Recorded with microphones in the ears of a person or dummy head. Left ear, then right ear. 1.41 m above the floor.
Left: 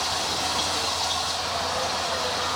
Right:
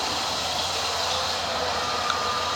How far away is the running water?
About 5.5 m.